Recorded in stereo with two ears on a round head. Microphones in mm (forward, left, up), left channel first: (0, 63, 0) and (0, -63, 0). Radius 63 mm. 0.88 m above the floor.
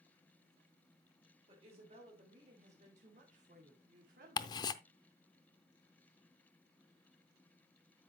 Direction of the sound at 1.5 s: 40° right (ahead or behind).